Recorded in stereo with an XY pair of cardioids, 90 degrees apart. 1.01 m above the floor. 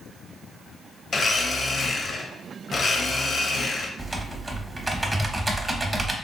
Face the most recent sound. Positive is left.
turn(degrees=-20)